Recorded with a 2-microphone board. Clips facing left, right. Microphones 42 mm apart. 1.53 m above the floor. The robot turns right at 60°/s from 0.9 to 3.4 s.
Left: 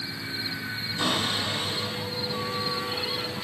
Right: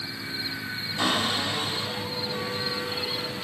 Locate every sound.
1.0 s a cupboard door: 105° right, 6.5 m; by 3.4 s 40° left, 6.5 m